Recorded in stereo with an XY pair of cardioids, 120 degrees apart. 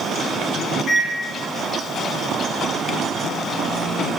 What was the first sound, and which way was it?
A microwave, 40° left.